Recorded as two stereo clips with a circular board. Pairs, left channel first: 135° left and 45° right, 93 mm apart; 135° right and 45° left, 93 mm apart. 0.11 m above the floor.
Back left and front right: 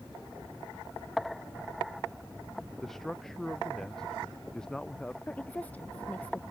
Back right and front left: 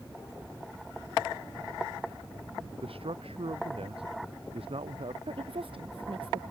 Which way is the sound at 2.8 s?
50° left.